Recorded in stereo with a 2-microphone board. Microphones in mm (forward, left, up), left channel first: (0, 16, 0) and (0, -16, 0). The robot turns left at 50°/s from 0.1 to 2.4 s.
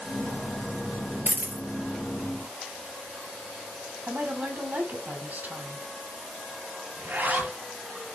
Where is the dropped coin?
65° right (ahead or behind), 2 m; by 1.6 s 60° right (ahead or behind), 2 m.